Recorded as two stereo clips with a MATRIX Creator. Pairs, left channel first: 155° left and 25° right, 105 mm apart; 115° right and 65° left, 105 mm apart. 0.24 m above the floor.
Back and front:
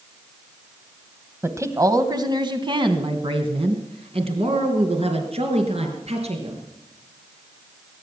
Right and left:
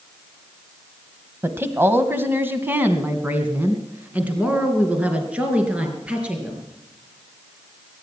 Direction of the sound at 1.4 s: 20° left.